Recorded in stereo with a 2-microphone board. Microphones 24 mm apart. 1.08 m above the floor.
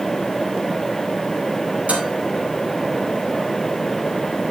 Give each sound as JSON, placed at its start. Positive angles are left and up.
{"t": 1.9, "sound": "dishes clattering", "side_deg": -90, "distance_m": 5.0}